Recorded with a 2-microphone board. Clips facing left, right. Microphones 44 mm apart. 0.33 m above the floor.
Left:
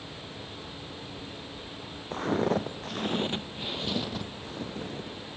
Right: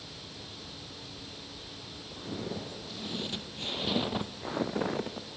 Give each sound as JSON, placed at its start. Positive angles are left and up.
{"t": 2.1, "sound": "footsteps", "side_deg": 75, "distance_m": 1.2}